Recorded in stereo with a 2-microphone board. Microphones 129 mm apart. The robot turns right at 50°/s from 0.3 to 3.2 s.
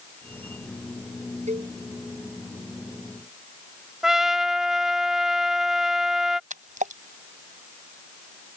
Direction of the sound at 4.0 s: 5° right (ahead or behind).